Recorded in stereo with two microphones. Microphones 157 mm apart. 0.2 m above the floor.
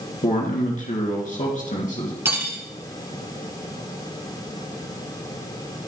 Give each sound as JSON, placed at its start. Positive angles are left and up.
{"t": 0.2, "sound": "a man speaking", "side_deg": 55, "distance_m": 2.5}
{"t": 2.2, "sound": "cutlery clinking", "side_deg": -15, "distance_m": 1.3}